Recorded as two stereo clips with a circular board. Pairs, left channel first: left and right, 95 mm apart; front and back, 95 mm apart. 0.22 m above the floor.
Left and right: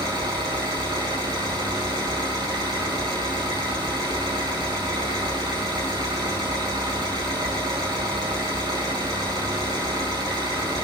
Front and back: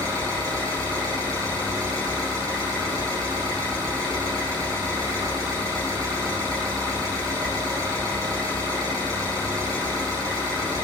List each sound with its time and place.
0.0 s an engine running: 130° right, 5 m